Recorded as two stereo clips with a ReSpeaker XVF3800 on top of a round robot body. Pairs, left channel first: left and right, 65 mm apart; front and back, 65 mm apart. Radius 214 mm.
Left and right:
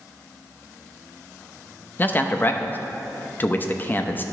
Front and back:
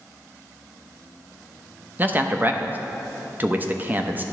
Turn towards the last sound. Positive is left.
turn(degrees=135)